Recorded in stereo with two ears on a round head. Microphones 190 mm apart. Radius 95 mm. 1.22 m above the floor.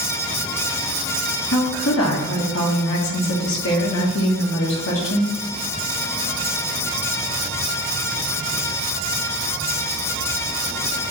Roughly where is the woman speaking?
Left.